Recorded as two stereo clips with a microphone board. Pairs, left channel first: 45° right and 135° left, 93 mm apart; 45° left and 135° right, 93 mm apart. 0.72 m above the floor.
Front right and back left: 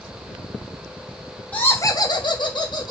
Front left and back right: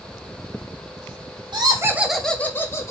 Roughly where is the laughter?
Behind right.